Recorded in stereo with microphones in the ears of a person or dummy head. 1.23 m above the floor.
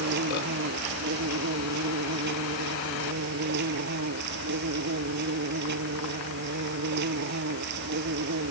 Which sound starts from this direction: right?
An insect, at 0.0 s.